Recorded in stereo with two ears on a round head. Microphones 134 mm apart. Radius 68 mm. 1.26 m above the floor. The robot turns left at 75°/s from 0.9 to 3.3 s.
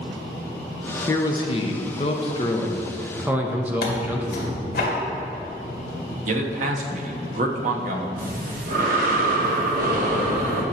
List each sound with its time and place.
1.1 s a man speaking: 150° left, 0.7 m; by 4.6 s 15° right, 0.7 m
3.8 s tearing paper: 65° left (ahead or behind), 1.7 m
6.3 s a man speaking: 50° right (ahead or behind), 0.9 m
8.2 s breathing: 60° right (ahead or behind), 1.1 m